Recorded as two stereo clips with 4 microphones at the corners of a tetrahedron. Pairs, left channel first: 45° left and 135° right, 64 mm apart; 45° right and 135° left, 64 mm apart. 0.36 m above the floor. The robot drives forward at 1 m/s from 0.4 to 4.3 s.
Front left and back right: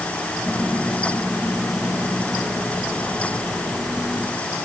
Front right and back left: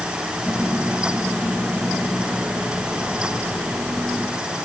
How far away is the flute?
No flute in this recording.